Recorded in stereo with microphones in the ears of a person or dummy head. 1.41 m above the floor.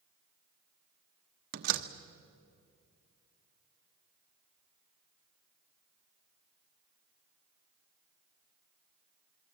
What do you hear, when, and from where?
1.5 s a door slam: 55° right (ahead or behind), 1.1 m